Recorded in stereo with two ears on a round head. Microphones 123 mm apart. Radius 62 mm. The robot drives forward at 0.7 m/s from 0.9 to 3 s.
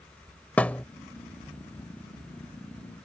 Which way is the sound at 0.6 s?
10° left (ahead or behind).